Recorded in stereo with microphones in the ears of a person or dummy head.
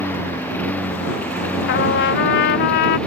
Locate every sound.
0.0 s a lawn mower: 5° left (ahead or behind)
1.7 s a trumpet: 55° left (ahead or behind)